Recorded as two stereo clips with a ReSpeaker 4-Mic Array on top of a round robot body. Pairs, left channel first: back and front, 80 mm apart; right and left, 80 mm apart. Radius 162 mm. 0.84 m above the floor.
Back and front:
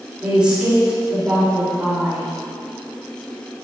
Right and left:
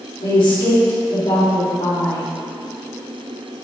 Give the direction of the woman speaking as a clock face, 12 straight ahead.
3 o'clock.